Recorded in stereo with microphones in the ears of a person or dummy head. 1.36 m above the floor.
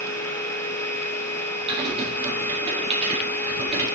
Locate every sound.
0.0 s a machine running: 10° left (ahead or behind), 1.0 m
1.7 s typing on a keyboard: 30° right (ahead or behind), 2 m